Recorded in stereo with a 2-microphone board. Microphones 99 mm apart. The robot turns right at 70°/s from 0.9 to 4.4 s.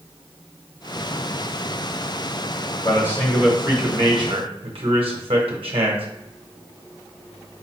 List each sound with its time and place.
2.8 s a man speaking: 140° left, 0.9 m; by 6.0 s 110° right, 0.9 m